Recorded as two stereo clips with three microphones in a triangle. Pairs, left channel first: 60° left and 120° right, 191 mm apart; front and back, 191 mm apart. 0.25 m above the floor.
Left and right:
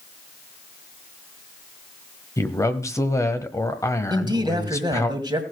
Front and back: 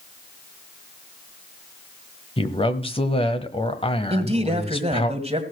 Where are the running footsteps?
No running footsteps in this recording.